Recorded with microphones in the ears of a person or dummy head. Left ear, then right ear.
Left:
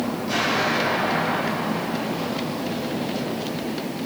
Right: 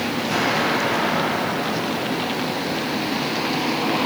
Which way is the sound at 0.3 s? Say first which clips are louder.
Right 1 dB; 15° left (ahead or behind).